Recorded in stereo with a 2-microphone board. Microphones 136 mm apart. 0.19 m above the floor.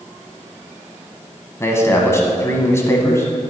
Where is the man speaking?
20° left (ahead or behind), 1.1 m.